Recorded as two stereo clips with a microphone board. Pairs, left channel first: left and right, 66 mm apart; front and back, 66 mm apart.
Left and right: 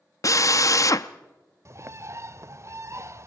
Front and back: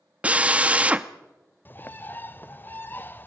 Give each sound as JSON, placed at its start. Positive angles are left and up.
{"t": 0.2, "sound": "a drill", "azimuth_deg": 110, "distance_m": 0.7}
{"t": 1.6, "sound": "a bird", "azimuth_deg": -55, "distance_m": 0.7}